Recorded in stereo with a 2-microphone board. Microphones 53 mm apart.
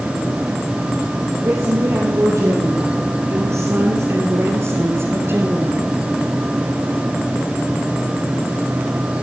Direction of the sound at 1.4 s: 60° right (ahead or behind).